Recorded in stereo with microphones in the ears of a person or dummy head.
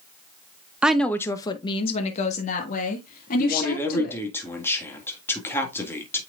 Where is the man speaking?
15° left (ahead or behind), 1.9 m.